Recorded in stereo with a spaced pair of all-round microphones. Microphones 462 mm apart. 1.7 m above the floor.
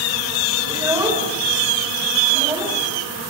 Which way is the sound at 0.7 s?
5° right (ahead or behind).